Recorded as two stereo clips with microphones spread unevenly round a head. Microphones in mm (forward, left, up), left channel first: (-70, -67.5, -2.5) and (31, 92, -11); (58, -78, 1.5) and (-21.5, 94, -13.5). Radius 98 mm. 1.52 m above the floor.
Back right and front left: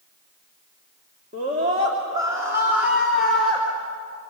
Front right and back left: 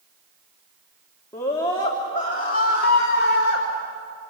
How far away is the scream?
About 2.5 m.